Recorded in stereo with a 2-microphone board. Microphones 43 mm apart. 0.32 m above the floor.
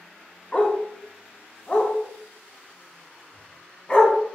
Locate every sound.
0.5 s a dog barking: 20° left (ahead or behind), 0.6 m